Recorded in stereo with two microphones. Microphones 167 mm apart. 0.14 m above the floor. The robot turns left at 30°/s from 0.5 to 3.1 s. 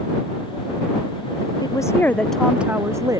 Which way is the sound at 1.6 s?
25° left.